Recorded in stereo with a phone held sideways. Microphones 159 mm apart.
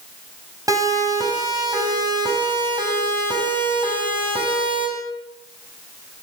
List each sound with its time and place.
0.7 s a siren: 20° right (ahead or behind), 9.5 m; by 4.9 s 35° right (ahead or behind), 9.5 m